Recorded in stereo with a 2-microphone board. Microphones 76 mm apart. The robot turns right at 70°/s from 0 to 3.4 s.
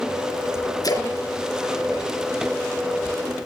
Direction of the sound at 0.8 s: 55° left (ahead or behind).